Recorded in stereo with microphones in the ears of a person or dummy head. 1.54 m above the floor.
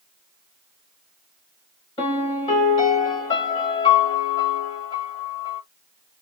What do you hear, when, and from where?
2.0 s a piano: 25° left (ahead or behind), 2.5 m